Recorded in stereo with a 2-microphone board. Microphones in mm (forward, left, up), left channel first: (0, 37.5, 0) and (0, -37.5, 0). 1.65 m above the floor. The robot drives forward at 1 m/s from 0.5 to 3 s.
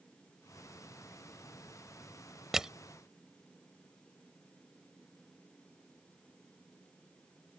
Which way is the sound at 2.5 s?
5° right (ahead or behind).